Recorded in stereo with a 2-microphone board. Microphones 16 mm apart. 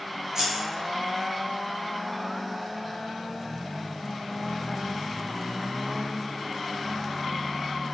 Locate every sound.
0.3 s scissors: 45° right (ahead or behind), 1.1 m